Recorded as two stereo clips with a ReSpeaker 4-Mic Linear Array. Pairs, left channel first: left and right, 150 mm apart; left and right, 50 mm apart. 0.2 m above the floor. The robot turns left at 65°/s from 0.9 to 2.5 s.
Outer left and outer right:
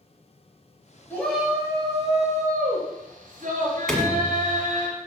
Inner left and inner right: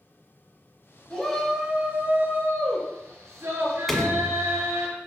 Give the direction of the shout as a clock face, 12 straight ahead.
11 o'clock.